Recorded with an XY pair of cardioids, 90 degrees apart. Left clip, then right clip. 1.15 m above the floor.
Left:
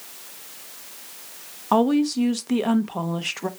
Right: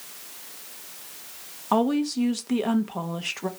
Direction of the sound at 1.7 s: 15° left.